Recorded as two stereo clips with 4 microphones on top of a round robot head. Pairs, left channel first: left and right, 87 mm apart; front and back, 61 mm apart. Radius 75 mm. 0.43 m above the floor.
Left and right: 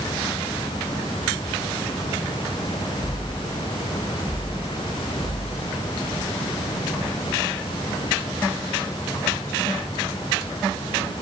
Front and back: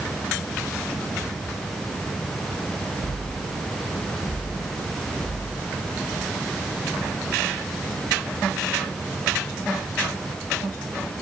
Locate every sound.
Only background noise.